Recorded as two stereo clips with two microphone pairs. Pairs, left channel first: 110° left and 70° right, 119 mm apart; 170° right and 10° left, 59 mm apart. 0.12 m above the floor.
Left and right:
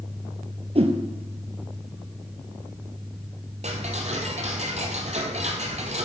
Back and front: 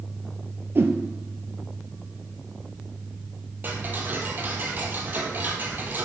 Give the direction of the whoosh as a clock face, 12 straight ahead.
1 o'clock.